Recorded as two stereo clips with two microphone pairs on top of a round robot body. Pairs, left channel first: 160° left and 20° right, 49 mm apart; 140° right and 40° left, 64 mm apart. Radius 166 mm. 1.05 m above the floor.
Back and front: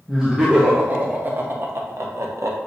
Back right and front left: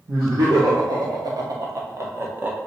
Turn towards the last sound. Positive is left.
turn(degrees=-20)